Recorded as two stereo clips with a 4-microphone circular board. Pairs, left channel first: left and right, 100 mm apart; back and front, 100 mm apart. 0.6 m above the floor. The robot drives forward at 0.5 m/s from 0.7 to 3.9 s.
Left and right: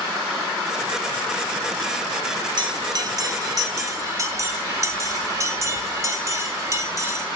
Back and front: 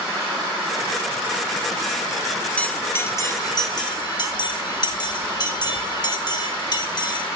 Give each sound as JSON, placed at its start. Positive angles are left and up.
{"t": 2.6, "sound": "a bell", "azimuth_deg": -105, "distance_m": 0.8}